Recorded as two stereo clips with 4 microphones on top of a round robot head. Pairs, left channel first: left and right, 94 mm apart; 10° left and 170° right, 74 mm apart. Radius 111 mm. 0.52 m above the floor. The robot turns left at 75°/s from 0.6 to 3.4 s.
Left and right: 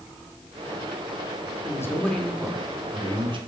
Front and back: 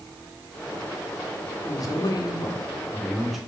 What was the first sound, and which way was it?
A man speaking, 45° left.